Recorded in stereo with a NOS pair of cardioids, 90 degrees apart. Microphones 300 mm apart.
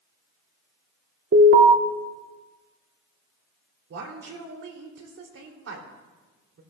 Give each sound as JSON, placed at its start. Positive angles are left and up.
{"t": 1.3, "sound": "an alarm", "azimuth_deg": -45, "distance_m": 2.0}
{"t": 3.9, "sound": "a woman speaking", "azimuth_deg": -55, "distance_m": 2.5}